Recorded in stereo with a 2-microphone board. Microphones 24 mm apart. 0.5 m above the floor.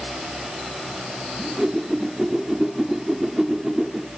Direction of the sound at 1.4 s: 25° right (ahead or behind).